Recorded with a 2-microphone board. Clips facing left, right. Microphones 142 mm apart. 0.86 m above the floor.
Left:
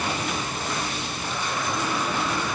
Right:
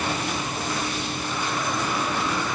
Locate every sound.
Only background noise.